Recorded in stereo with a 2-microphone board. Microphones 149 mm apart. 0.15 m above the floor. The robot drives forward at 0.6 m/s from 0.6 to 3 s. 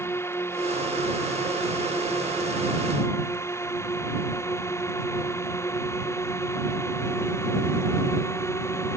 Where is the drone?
15° left (ahead or behind); by 9.0 s 20° left (ahead or behind).